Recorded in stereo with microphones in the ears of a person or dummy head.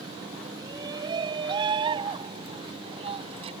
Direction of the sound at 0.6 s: 25° right (ahead or behind).